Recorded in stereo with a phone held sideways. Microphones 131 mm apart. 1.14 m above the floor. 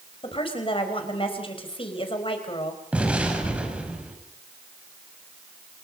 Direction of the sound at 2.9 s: 10° right (ahead or behind).